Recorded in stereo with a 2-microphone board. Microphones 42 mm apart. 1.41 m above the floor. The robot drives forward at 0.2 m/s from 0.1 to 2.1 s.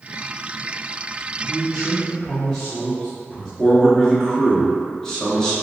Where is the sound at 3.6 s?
10° left (ahead or behind), 1.3 m.